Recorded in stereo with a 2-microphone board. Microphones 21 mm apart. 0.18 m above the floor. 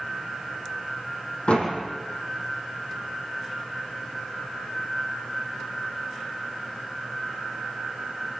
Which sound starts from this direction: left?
A door slam, at 1.5 s.